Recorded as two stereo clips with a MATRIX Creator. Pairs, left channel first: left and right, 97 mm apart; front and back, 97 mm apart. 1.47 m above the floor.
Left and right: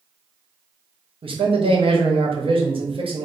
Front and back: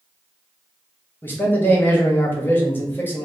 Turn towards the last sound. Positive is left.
turn(degrees=-70)